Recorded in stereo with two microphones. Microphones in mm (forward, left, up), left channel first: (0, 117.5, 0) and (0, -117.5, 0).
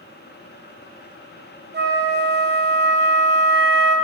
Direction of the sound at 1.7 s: 45° right (ahead or behind).